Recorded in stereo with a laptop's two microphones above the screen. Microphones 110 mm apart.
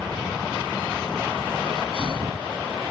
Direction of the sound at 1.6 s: 60° right (ahead or behind).